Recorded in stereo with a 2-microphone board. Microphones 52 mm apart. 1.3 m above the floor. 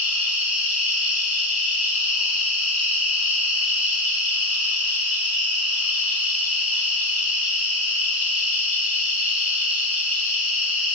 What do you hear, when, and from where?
0.0 s an insect: 30° right (ahead or behind), 1.7 m